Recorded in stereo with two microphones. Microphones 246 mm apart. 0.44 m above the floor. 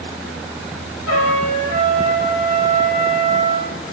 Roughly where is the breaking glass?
No breaking glass in this recording.